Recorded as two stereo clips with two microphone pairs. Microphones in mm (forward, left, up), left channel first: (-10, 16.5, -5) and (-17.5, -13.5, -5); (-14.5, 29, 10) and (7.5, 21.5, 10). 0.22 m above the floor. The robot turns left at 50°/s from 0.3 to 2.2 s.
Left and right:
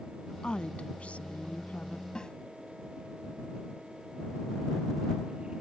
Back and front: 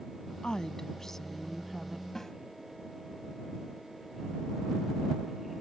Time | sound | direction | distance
0.4 | a woman speaking | 130° left | ?
2.1 | a snare drum | 110° left | ?